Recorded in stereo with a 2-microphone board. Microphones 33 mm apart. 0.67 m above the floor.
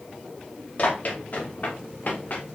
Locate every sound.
0.8 s running footsteps: 45° left (ahead or behind), 5.5 m; by 2.4 s 50° left (ahead or behind), 5 m